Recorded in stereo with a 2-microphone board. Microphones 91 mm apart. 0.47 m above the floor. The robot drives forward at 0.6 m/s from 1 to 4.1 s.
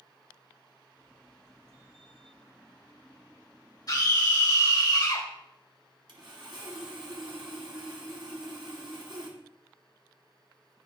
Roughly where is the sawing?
Right.